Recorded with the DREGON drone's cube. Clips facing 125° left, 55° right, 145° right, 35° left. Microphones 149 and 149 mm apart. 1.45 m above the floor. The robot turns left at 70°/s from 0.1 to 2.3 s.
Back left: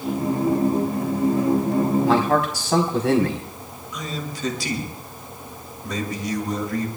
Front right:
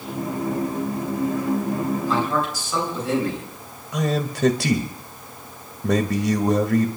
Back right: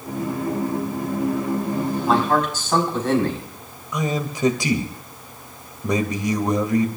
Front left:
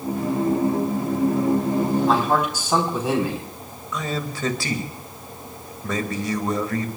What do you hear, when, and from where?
2.0 s a man speaking: 130° left, 4 m; by 3.5 s 115° left, 4 m
3.9 s a man speaking: 75° right, 2 m